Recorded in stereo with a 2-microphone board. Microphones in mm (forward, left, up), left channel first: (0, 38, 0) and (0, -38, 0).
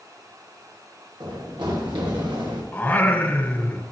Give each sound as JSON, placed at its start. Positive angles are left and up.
{"t": 1.2, "sound": "running footsteps", "side_deg": -85, "distance_m": 7.0}
{"t": 2.7, "sound": "singing", "side_deg": 20, "distance_m": 1.8}